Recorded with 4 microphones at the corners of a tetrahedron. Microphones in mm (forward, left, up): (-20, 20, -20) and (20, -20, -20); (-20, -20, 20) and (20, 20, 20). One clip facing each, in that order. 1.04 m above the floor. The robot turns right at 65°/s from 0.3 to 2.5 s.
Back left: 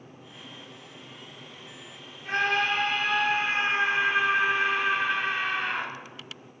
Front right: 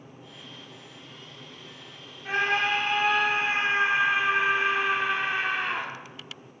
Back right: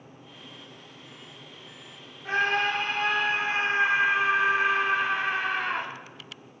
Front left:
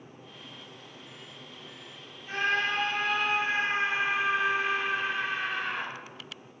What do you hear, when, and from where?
2.2 s a scream: 120° right, 2.5 m; by 5.9 s 100° right, 2.5 m